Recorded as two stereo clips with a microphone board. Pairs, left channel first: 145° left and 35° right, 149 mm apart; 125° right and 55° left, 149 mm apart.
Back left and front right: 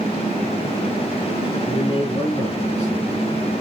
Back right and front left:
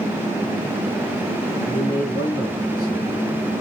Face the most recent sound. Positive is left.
turn(degrees=165)